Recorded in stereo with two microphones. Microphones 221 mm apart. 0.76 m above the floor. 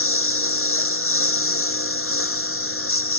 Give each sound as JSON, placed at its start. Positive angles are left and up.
{"t": 0.0, "sound": "a lawn mower", "side_deg": 85}